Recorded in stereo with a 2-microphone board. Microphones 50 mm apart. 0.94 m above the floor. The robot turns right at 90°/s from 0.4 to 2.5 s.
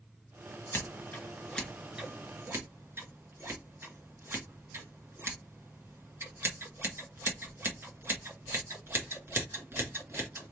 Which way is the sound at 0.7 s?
60° left (ahead or behind).